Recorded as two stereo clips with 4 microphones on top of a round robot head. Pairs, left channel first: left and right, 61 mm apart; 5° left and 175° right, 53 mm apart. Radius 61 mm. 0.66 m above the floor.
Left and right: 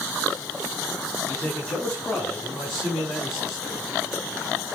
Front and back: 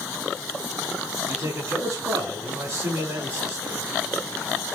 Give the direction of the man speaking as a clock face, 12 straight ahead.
6 o'clock.